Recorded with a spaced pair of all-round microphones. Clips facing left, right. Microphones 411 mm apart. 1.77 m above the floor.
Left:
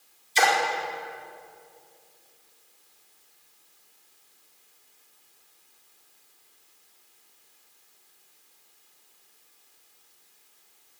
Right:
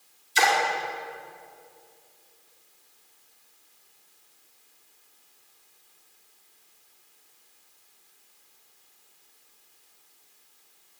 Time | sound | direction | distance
0.3 | a splash | 25° right (ahead or behind) | 5.5 m